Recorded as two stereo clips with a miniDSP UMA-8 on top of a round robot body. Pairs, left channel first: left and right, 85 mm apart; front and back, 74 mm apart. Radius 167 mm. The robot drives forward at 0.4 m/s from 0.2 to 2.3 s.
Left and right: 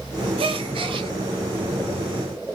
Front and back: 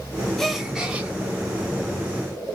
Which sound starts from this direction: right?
A gasp, at 0.4 s.